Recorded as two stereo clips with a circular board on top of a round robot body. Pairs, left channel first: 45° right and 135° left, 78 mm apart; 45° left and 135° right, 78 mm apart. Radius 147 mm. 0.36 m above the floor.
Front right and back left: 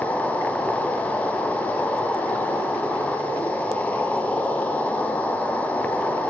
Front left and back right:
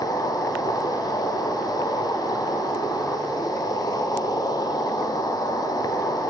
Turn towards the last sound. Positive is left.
turn(degrees=25)